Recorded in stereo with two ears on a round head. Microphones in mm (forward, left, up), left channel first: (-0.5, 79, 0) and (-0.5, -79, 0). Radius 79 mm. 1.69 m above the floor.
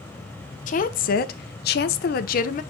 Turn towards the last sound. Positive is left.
turn(degrees=45)  # may be behind; listen again after turning